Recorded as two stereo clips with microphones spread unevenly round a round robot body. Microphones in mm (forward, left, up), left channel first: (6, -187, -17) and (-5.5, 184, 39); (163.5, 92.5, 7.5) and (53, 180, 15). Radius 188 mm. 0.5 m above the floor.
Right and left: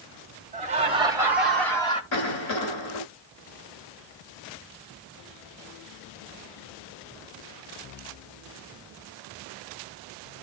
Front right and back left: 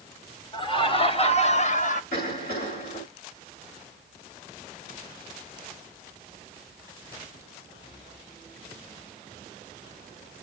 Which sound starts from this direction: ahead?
Laughter, at 0.5 s.